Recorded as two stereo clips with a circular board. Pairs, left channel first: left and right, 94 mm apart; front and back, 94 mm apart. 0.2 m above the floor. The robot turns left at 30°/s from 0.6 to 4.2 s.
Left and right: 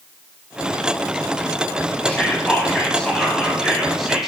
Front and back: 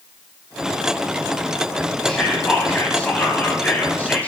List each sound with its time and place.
2.0 s whispering: 55° left, 1.0 m; by 4.3 s 10° right, 1.0 m